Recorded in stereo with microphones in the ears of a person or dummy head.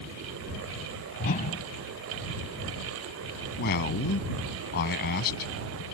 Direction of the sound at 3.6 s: 50° left (ahead or behind).